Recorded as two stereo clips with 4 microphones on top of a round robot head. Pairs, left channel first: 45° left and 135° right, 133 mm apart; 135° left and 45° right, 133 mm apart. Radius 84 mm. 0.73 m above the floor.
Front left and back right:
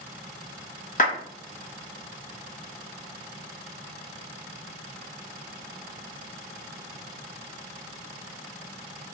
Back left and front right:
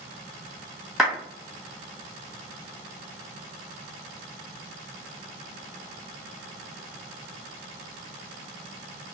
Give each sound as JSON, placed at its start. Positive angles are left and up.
{"t": 1.0, "sound": "a clap", "azimuth_deg": 45, "distance_m": 1.7}